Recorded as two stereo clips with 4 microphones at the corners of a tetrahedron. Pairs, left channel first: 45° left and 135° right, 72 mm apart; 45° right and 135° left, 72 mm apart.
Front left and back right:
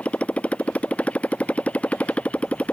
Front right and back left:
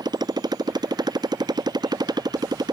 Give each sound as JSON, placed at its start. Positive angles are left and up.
{"t": 0.0, "sound": "a motorcycle", "azimuth_deg": 120}